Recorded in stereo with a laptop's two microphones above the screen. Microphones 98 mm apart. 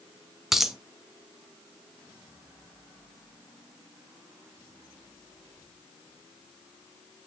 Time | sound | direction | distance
0.5 | a dropped coin | 5° right (ahead or behind) | 1.0 m